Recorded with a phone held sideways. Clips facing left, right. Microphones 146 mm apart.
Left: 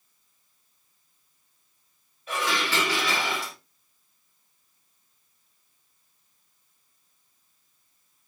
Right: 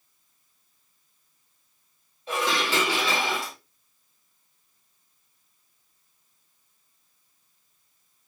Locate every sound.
2.3 s dishes clattering: 25° right (ahead or behind), 1.7 m